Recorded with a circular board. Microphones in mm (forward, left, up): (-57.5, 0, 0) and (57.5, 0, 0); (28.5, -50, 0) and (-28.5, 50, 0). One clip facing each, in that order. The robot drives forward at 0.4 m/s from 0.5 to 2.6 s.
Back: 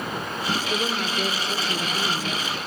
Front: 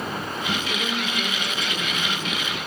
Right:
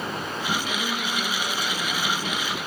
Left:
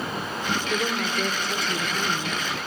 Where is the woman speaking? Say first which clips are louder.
Back 1 dB, left 3 dB; 130° left, 1.8 m; by 2.4 s 155° left, 2 m.